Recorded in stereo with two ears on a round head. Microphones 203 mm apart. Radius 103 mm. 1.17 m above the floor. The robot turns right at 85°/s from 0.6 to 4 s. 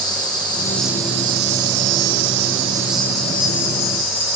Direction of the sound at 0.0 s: 160° left.